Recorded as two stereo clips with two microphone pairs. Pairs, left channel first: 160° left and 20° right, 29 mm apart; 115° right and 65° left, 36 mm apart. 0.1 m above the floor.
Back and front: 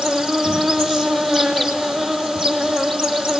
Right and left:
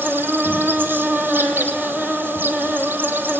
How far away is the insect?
About 2 m.